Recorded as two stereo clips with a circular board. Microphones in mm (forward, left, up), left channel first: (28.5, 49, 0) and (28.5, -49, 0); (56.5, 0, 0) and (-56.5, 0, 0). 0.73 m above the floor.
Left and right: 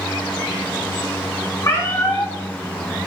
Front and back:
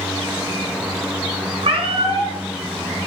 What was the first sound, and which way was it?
A cat meowing, 150° left.